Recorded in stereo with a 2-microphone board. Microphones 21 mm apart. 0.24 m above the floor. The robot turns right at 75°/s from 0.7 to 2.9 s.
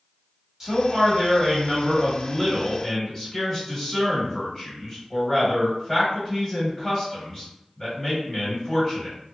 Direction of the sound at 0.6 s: 20° right (ahead or behind).